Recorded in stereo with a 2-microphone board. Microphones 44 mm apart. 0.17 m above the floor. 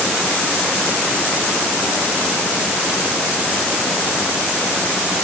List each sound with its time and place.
Only background noise.